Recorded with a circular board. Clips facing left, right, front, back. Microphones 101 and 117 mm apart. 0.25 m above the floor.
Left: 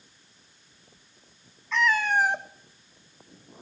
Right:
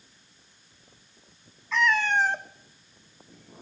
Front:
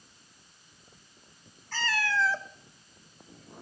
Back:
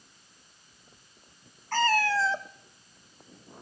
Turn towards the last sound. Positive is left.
turn(degrees=25)